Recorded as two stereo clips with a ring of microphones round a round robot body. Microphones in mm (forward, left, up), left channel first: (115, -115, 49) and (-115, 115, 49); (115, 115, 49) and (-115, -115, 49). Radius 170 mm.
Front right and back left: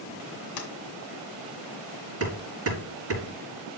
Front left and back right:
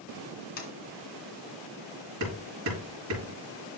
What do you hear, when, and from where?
0.6 s a sliding door: 20° right, 2 m
2.2 s hammering: 175° right, 4 m